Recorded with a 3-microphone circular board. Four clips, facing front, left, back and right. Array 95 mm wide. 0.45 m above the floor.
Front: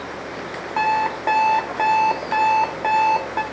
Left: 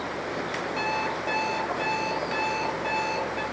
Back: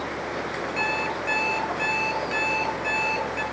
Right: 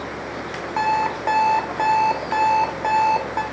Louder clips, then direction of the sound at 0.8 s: Right 11 dB, front 11 dB; 45° right.